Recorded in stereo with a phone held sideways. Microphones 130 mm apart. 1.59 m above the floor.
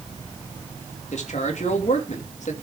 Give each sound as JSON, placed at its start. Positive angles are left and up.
{"t": 1.1, "sound": "a man speaking", "side_deg": 60, "distance_m": 3.0}